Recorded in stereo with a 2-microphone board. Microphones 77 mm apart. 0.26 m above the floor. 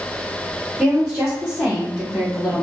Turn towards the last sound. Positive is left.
turn(degrees=-5)  # may be behind; listen again after turning